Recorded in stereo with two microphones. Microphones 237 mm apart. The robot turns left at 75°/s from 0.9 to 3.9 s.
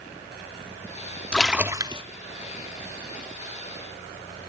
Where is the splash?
10° left, 0.9 m; by 2.0 s 45° right, 0.9 m.